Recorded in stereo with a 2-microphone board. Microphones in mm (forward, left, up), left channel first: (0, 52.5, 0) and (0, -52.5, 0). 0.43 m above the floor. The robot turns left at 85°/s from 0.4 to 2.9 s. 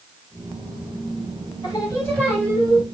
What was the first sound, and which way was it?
Singing, 60° left.